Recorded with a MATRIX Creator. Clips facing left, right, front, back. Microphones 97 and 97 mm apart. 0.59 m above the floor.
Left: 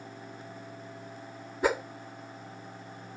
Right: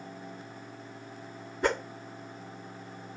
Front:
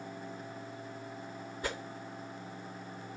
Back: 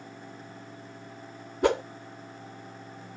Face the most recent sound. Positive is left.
turn(degrees=175)